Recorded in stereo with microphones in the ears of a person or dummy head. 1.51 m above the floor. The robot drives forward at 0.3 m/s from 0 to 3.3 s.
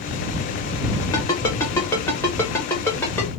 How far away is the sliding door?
I don't hear a sliding door.